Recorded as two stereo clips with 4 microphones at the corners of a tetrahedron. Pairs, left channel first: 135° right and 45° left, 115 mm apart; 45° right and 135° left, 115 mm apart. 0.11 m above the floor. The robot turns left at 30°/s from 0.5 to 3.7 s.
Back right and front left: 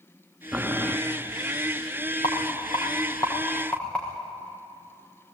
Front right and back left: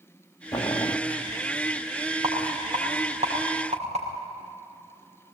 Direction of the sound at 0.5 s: 35° right.